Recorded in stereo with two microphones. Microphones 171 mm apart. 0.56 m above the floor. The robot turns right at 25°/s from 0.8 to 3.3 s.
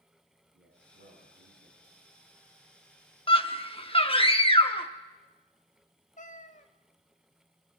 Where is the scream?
35° left (ahead or behind), 1.1 m.